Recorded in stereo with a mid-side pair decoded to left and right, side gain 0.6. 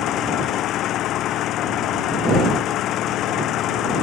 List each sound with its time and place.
0.0 s an engine running: 60° left